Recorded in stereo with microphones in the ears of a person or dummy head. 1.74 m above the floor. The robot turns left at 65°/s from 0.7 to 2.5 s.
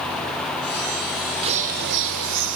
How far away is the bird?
About 0.6 m.